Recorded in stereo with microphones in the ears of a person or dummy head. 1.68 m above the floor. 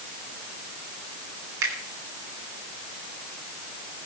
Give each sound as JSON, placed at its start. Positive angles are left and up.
{"t": 1.6, "sound": "a finger snap", "side_deg": -70, "distance_m": 4.0}